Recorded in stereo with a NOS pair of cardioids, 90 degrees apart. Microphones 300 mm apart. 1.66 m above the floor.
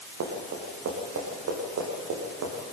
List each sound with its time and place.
0.2 s running footsteps: 65° right, 6 m